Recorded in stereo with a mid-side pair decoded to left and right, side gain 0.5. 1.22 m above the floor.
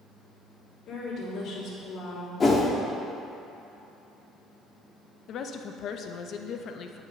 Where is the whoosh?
35° left, 1.6 m.